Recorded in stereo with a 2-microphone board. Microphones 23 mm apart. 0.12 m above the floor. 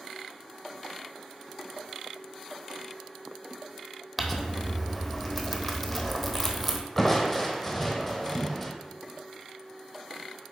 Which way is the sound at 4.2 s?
Centre (ahead or behind).